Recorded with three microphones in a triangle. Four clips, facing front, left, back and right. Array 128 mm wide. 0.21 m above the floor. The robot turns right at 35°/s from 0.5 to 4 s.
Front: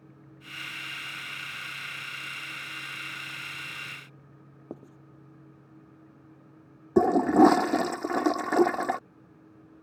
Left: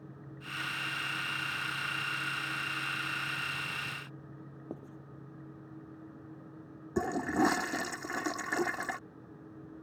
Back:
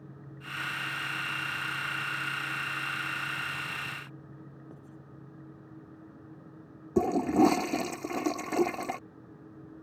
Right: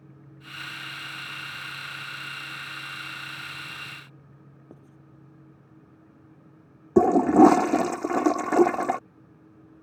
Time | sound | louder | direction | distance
4.7 | writing | left 7 dB, front 6 dB | 30° left | ?
7.0 | a toilet flushing | right 14 dB, front 5 dB | 70° right | ?